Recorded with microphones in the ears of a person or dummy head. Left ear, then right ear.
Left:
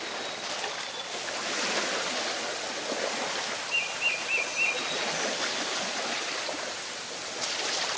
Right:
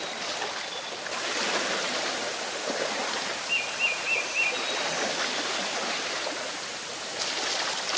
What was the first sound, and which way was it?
Only background noise.